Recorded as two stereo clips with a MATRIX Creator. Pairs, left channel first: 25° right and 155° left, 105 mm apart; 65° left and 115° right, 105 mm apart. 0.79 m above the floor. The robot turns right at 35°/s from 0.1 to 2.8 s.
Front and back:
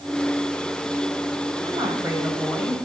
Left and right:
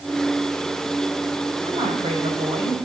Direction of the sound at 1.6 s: 150° right.